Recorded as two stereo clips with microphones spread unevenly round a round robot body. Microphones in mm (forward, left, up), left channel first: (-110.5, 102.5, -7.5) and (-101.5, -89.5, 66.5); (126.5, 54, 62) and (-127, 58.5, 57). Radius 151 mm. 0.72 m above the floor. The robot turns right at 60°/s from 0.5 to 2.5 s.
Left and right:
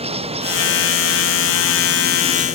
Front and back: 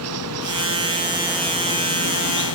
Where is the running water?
145° right; by 2.5 s 25° right.